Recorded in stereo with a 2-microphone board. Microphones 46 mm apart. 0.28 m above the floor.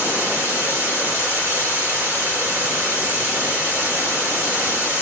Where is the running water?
70° right (ahead or behind), 2 m.